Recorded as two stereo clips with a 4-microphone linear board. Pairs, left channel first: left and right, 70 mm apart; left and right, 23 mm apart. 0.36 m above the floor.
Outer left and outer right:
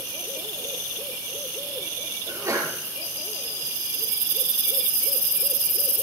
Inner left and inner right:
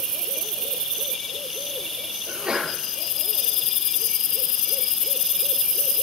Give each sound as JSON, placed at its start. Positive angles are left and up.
{"t": 2.3, "sound": "a sneeze", "side_deg": -50, "distance_m": 5.5}